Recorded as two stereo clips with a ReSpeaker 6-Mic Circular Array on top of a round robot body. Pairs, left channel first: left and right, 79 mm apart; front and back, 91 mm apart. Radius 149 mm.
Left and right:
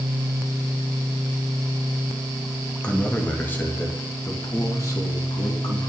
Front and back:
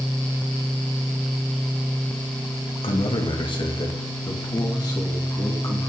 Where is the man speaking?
15° left, 2 m; by 5.9 s 50° left, 3.5 m.